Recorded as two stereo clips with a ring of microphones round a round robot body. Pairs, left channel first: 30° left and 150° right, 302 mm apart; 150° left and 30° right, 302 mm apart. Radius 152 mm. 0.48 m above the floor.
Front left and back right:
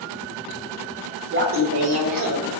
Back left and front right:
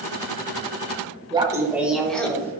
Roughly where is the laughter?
Right.